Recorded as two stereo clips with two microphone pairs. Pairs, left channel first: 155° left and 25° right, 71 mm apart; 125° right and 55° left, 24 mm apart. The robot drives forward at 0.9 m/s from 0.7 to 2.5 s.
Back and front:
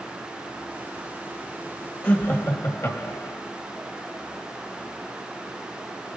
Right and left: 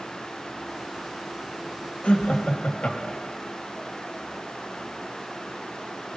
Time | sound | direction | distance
2.0 | laughter | 145° right | 1.2 m